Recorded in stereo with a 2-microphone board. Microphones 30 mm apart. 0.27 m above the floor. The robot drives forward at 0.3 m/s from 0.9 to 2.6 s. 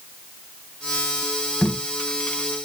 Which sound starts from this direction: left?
Tape being pulled, at 1.6 s.